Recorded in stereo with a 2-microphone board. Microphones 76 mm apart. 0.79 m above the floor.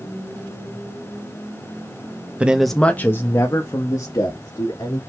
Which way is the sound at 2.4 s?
15° right (ahead or behind).